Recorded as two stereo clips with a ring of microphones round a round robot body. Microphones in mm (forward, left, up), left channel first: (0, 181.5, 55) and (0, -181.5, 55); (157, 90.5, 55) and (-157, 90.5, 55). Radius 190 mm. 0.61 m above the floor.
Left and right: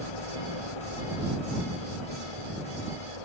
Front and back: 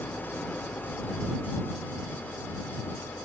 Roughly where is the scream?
No scream in this recording.